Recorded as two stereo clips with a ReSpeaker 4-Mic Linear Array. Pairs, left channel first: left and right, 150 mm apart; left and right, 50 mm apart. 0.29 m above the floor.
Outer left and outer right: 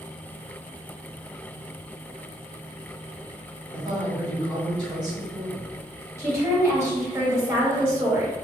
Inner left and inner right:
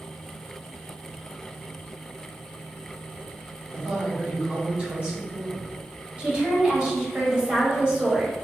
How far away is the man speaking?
About 1.4 m.